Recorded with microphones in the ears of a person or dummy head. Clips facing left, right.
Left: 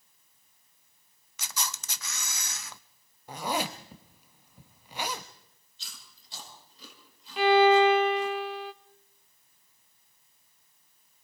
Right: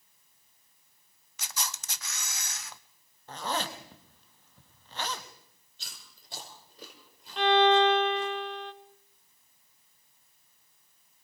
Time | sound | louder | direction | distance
1.4 | a camera shutter | left 2 dB | 70° left (ahead or behind) | 0.7 m
3.3 | a zipper | left 2 dB | 10° left (ahead or behind) | 1.4 m
5.8 | chewing | right 1 dB | 45° right (ahead or behind) | 5 m
7.4 | a violin | left 3 dB | centre (ahead or behind) | 0.6 m